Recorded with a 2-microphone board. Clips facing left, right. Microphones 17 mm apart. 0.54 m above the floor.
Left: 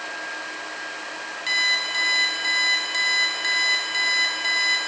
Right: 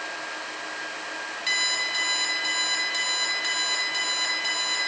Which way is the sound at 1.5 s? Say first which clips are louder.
Left 3 dB; 10° left (ahead or behind).